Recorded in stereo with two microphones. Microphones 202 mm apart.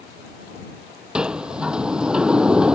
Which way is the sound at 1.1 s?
5° right (ahead or behind).